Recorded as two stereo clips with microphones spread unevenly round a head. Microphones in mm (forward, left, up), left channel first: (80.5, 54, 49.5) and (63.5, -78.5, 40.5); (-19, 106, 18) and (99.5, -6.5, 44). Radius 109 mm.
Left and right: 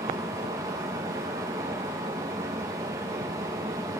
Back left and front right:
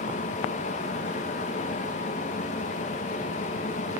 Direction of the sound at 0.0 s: 170° right.